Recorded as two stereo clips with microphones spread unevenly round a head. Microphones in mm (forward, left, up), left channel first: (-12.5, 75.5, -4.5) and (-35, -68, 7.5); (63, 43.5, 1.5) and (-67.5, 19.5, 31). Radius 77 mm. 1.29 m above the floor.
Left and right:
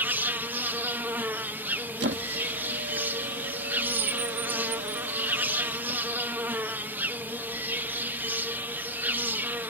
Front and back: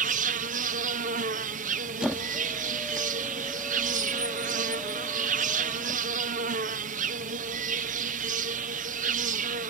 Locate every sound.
0.0 s an insect: 175° right
2.0 s a squeak: 85° right